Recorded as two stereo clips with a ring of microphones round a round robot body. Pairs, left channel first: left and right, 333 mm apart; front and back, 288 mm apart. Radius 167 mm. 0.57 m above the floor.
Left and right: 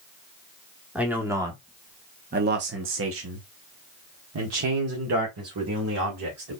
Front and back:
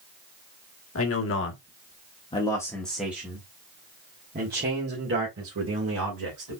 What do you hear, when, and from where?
0.9 s a man speaking: 5° right, 1.4 m; by 6.6 s 135° right, 2.5 m